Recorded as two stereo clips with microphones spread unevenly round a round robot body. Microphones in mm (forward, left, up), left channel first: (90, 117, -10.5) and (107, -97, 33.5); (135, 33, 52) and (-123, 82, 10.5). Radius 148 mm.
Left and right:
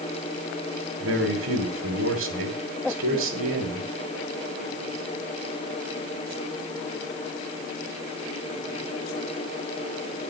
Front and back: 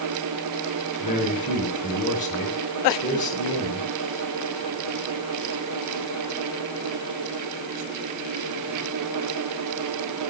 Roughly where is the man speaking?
Right.